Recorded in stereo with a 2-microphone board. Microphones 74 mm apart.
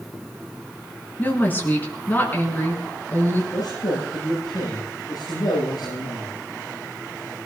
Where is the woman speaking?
25° left (ahead or behind), 5 m.